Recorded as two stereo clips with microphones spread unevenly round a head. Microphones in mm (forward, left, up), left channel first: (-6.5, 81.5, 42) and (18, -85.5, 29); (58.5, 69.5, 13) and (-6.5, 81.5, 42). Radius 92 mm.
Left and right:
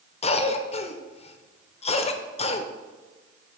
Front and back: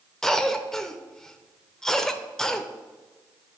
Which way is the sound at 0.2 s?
50° left.